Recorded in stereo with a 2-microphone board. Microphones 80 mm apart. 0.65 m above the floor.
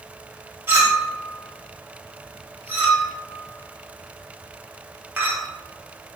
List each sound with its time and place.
0.7 s a clink: 25° right (ahead or behind), 0.9 m